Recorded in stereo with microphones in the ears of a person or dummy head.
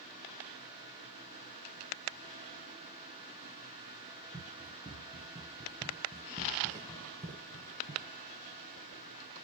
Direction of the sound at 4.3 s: 5° left (ahead or behind).